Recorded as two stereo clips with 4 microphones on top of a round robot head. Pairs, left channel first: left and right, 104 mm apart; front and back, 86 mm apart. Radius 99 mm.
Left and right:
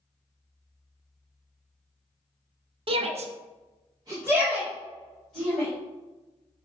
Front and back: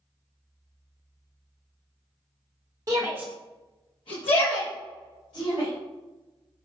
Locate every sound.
2.9 s a shout: 125° right, 0.9 m; by 5.7 s 5° left, 2.5 m